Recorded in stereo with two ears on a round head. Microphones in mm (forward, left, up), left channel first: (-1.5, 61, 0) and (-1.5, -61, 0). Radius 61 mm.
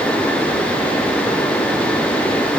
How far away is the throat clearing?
I don't hear throat clearing.